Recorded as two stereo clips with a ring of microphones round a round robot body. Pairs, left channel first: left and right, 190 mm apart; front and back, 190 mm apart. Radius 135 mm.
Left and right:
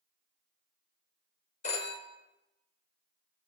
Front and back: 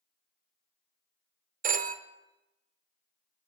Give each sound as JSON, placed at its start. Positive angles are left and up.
{"t": 1.6, "sound": "a phone ringing", "azimuth_deg": 145, "distance_m": 0.6}